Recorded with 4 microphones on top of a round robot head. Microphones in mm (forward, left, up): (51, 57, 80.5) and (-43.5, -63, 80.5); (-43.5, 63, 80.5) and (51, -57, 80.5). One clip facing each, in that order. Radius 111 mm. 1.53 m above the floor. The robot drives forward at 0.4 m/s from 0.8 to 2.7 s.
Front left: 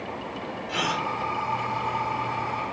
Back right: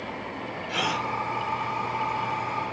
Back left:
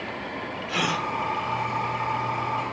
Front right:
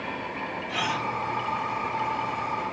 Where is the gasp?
140° left, 2.5 m.